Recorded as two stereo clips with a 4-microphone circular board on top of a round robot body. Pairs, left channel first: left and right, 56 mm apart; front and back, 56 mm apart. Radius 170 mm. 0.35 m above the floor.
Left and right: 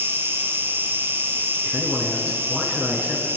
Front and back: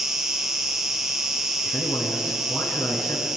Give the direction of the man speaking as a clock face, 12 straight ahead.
1 o'clock.